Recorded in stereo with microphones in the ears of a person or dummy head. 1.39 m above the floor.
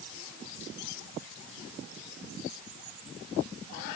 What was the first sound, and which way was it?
Only background noise.